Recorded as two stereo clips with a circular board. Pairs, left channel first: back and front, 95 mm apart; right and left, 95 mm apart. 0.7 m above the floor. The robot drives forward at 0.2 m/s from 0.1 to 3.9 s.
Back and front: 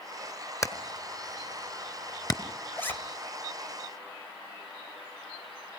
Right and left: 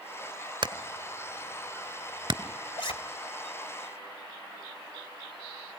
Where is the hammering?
125° left, 2.5 m; by 2.4 s 130° left, 2.5 m.